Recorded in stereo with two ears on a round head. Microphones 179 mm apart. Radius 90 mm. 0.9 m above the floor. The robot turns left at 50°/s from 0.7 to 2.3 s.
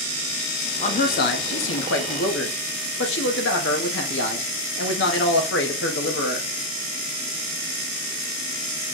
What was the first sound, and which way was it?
A man speaking, 140° left.